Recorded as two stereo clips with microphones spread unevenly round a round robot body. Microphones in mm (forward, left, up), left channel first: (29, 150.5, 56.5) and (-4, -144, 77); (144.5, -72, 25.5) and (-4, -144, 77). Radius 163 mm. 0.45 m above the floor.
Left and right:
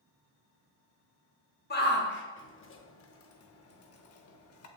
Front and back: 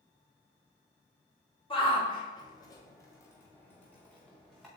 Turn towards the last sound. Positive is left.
turn(degrees=100)